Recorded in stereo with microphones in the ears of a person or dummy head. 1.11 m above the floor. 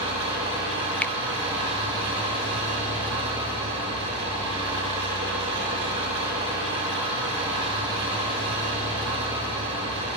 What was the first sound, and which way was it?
An engine running, 25° right (ahead or behind).